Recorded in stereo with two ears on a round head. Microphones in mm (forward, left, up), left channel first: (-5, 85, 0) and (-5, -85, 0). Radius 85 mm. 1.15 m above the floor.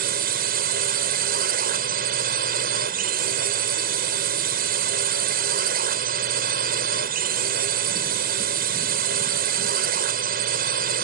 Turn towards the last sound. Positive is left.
turn(degrees=-55)  # may be behind; listen again after turning